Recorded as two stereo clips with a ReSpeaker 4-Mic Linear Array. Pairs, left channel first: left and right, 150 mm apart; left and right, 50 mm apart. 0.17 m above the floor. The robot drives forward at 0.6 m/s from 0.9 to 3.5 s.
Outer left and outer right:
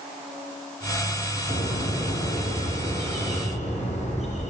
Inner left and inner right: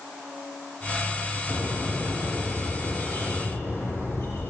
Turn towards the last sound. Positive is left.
turn(degrees=50)  # may be behind; listen again after turning